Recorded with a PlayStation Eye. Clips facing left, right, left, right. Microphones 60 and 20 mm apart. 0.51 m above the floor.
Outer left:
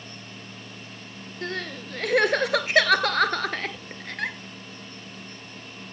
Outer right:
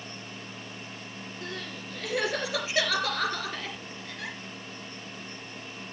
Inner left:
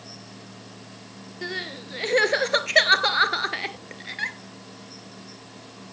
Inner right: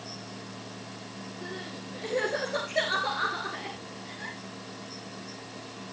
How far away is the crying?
About 1.3 m.